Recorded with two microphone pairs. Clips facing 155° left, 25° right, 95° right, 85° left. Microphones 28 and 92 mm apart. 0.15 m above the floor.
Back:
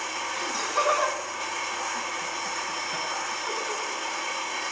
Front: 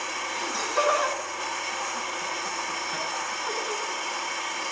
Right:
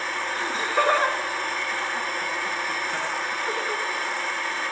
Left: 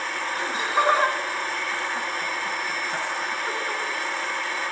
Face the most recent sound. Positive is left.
turn(degrees=85)